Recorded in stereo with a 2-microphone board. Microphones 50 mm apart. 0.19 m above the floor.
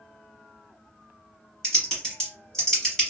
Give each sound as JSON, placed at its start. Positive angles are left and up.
{"t": 1.6, "sound": "typing on a keyboard", "side_deg": 10, "distance_m": 1.3}